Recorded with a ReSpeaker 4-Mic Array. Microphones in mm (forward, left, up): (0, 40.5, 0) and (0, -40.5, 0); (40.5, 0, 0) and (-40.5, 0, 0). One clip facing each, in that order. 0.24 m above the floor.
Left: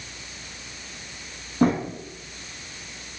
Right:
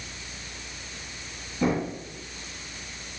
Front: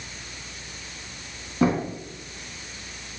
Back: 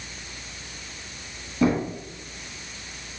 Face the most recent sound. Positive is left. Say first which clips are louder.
# left 5 dB, even
turn(degrees=55)